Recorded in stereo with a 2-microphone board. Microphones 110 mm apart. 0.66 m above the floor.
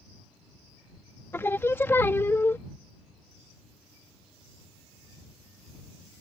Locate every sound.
1.3 s singing: 20° left (ahead or behind)